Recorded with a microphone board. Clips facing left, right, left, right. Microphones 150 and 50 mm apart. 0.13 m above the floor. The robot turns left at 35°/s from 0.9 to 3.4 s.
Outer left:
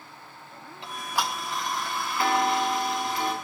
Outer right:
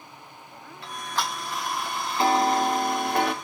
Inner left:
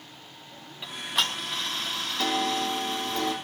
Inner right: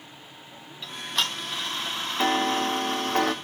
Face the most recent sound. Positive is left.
turn(degrees=-70)